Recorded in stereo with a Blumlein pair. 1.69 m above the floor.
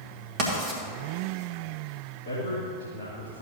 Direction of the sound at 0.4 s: 40° right.